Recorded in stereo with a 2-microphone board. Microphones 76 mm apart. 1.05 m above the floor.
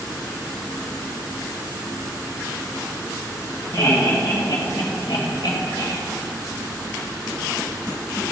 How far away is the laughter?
About 2 m.